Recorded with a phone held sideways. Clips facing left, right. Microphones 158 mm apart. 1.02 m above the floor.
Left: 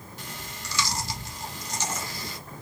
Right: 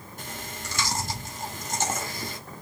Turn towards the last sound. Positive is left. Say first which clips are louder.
# right 4 dB
turn(degrees=-50)  # may be behind; listen again after turning